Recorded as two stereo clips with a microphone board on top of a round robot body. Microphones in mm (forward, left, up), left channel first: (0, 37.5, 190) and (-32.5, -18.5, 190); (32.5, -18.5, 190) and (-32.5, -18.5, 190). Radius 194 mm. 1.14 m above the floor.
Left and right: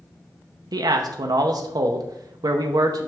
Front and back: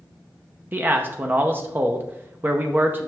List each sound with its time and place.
0.7 s a man speaking: 120° right, 0.7 m